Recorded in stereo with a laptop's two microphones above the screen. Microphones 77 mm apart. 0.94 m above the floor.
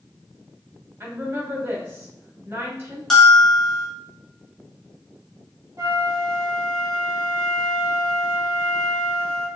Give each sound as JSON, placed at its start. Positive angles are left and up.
{"t": 1.0, "sound": "a woman speaking", "side_deg": -30, "distance_m": 3.5}
{"t": 3.1, "sound": "a bell", "side_deg": 5, "distance_m": 2.5}
{"t": 5.8, "sound": "a flute", "side_deg": -40, "distance_m": 2.5}